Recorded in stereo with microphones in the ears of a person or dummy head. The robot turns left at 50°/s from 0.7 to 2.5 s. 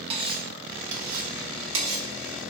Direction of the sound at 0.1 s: 30° right (ahead or behind).